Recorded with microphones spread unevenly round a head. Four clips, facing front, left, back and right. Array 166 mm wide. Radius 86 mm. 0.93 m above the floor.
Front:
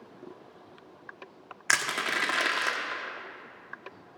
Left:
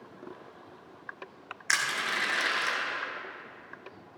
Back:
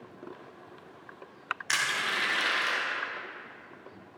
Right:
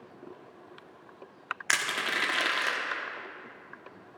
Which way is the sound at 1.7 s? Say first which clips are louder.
Left 1 dB, front 3 dB; 30° right.